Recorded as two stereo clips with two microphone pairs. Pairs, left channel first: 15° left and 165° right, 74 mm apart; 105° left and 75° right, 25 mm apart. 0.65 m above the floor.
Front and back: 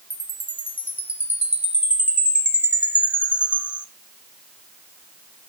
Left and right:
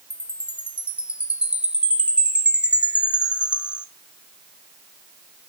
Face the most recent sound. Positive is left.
turn(degrees=-95)